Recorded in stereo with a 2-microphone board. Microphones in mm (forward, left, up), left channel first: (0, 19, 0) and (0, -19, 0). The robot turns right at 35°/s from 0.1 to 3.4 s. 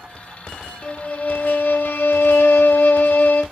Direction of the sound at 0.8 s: 30° left.